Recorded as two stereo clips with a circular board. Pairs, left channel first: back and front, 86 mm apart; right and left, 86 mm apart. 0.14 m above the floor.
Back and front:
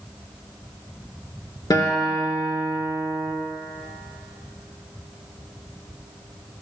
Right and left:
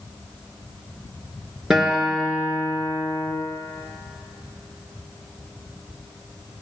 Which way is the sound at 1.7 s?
175° left.